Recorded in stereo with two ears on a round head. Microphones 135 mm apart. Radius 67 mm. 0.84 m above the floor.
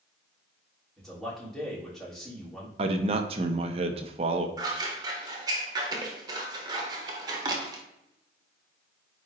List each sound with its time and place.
1.0 s a man speaking: 5° left (ahead or behind), 3 m
2.8 s a man speaking: 40° right (ahead or behind), 0.9 m
4.6 s scissors: 25° right (ahead or behind), 1.3 m